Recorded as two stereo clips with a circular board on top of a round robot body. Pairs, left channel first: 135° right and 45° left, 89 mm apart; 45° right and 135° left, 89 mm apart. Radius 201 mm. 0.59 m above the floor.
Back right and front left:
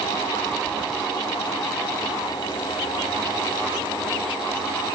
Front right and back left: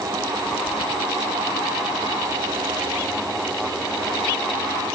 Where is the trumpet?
No trumpet in this recording.